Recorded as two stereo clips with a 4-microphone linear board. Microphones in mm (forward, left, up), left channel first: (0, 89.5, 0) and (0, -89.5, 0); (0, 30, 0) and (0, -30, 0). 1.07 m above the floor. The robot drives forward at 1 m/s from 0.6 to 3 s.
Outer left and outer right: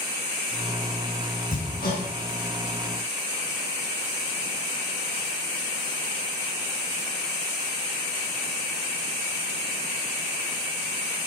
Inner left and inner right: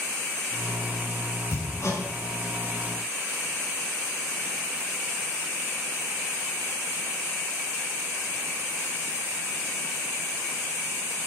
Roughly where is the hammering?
Left.